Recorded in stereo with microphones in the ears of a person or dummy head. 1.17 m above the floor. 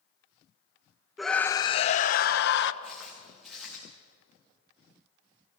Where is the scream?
Centre (ahead or behind), 0.7 m; by 2.7 s 65° left (ahead or behind), 1.2 m.